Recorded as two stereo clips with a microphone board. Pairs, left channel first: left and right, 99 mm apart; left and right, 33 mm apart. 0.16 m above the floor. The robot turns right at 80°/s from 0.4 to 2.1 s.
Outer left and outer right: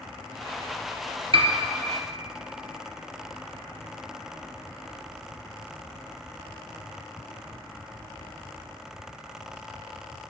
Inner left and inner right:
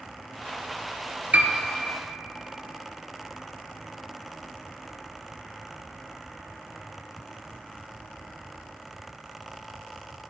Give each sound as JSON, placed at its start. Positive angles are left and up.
{"t": 1.3, "sound": "a piano", "side_deg": -70, "distance_m": 0.7}